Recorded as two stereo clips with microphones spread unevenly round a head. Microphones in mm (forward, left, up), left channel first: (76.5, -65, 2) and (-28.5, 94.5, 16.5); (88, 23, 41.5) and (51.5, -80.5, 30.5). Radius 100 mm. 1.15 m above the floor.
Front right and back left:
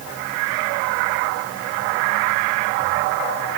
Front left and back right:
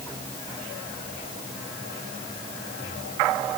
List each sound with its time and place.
Only background noise.